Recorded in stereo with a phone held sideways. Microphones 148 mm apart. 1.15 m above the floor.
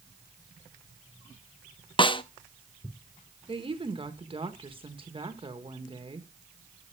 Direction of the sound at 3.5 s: 35° right (ahead or behind).